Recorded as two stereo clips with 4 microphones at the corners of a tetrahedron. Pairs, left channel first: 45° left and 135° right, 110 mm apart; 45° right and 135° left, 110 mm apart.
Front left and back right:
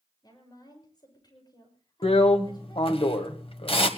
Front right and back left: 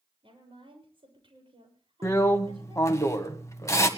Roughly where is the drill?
Ahead.